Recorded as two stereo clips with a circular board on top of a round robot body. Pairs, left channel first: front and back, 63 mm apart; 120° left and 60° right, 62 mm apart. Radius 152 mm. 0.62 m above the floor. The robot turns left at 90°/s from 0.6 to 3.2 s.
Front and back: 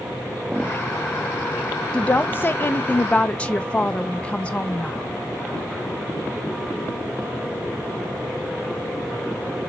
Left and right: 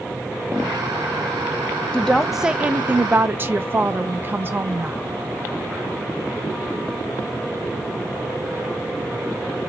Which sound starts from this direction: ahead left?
A woman speaking, at 1.9 s.